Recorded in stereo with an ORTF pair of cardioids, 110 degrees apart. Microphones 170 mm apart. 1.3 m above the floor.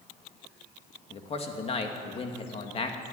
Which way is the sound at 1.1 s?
35° left.